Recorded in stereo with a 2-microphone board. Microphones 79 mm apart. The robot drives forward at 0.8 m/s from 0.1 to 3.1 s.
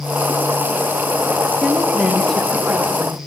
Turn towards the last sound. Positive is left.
turn(degrees=5)  # may be behind; listen again after turning